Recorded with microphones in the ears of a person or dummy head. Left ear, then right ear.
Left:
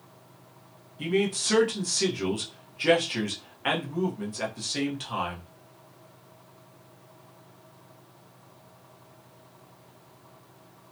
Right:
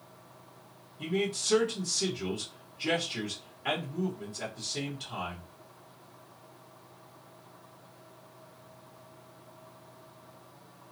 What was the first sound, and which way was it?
A man speaking, 35° left (ahead or behind).